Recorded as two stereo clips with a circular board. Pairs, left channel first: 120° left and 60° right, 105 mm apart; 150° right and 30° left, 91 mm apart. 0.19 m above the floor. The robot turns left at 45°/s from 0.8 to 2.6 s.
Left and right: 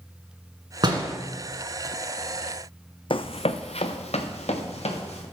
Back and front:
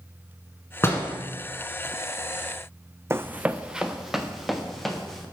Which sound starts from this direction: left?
Running footsteps, at 3.1 s.